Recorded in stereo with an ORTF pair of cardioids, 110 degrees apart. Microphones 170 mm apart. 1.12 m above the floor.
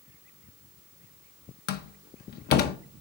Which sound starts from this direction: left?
A door slam, at 1.7 s.